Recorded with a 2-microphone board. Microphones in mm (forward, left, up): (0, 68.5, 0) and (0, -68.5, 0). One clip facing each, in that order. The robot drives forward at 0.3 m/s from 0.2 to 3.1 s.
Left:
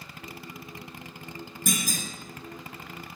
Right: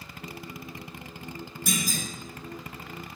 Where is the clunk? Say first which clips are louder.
Even; 50° left (ahead or behind), 0.7 m; by 2.0 s 45° left (ahead or behind), 0.8 m.